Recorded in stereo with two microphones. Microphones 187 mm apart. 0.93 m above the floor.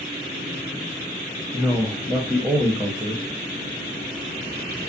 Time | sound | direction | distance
1.5 | a man speaking | 5° right (ahead or behind) | 0.7 m